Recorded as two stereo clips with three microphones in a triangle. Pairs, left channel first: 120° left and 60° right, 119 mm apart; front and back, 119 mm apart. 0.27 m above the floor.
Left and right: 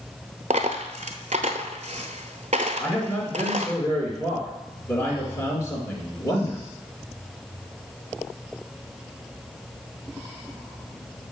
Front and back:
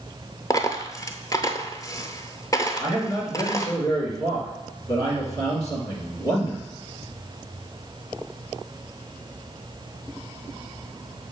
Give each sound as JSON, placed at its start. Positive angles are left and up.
{"t": 0.5, "sound": "a dropped coin", "azimuth_deg": -65, "distance_m": 0.6}
{"t": 2.8, "sound": "a man speaking", "azimuth_deg": 55, "distance_m": 2.5}